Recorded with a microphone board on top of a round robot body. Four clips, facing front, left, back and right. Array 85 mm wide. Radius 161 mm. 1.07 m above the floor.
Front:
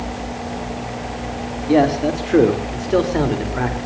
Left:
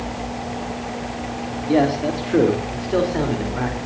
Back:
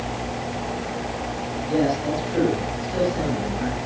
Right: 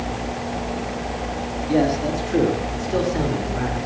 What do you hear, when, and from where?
1.7 s a man speaking: 20° left, 3.5 m; by 3.9 s 15° left, 4.5 m